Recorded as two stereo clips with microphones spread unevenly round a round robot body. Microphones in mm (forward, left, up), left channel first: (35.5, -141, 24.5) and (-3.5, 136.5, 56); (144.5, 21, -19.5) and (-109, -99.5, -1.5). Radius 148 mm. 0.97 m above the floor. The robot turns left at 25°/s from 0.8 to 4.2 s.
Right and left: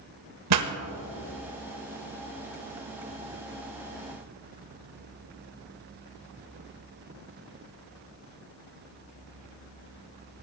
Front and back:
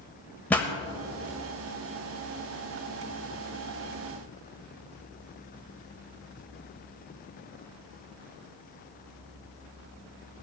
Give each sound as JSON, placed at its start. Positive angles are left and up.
{"t": 0.5, "sound": "a pop", "azimuth_deg": 110, "distance_m": 1.1}